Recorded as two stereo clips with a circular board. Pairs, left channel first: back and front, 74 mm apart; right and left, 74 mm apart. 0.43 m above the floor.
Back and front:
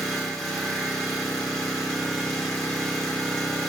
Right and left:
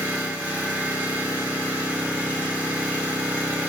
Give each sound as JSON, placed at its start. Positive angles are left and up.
{"t": 0.0, "sound": "an engine running", "azimuth_deg": 100, "distance_m": 0.7}